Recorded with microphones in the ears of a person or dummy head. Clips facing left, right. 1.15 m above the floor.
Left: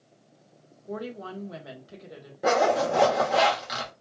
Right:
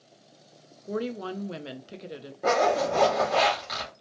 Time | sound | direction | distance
0.9 | a woman speaking | 35° right (ahead or behind) | 0.6 m
2.4 | a zipper | 10° left (ahead or behind) | 1.0 m